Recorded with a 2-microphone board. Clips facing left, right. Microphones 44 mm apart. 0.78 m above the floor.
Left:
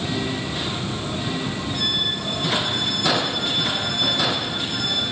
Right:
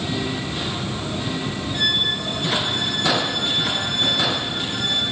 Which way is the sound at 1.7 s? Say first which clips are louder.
Right 4 dB; 45° right (ahead or behind).